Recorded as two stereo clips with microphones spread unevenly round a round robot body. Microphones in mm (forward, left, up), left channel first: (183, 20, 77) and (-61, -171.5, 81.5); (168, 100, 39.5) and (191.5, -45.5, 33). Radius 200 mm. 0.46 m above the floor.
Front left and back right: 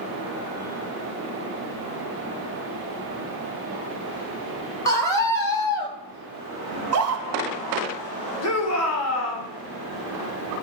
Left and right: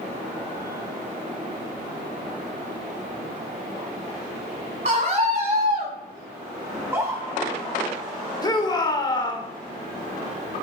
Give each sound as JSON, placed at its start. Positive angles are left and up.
{"t": 4.8, "sound": "a scream", "azimuth_deg": -40, "distance_m": 4.0}
{"t": 6.7, "sound": "a scream", "azimuth_deg": -150, "distance_m": 1.4}
{"t": 8.4, "sound": "a shout", "azimuth_deg": 40, "distance_m": 1.9}